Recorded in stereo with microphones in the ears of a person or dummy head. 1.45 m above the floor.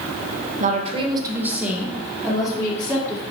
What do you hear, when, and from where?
0.6 s a woman speaking: 40° right (ahead or behind), 1.6 m; by 3.2 s 30° left (ahead or behind), 3 m